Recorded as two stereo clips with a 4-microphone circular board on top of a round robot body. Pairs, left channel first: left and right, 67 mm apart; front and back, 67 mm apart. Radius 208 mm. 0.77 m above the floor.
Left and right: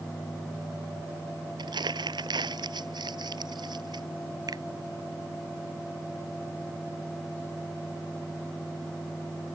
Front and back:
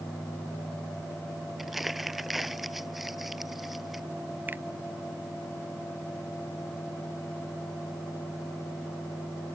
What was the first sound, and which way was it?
Crumpling, 90° right.